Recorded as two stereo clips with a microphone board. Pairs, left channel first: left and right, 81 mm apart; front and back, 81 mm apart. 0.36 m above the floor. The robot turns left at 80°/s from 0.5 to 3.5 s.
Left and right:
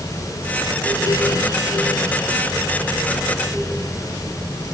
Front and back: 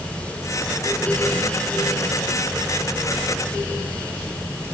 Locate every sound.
Only background noise.